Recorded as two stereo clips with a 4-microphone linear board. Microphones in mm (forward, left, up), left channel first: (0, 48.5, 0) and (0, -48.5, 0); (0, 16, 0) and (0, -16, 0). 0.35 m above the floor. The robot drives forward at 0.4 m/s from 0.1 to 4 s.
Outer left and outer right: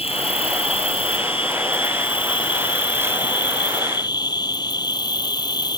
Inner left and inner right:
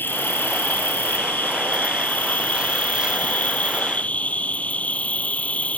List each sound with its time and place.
0.0 s an insect: 80° left; by 5.8 s 45° left (ahead or behind)